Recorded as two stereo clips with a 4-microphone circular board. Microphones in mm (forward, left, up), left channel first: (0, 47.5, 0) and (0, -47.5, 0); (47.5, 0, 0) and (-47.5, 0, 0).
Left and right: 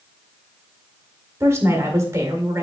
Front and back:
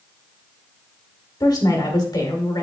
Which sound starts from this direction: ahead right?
A woman speaking, at 1.4 s.